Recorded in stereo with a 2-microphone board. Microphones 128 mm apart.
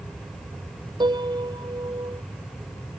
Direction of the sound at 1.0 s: 35° right (ahead or behind).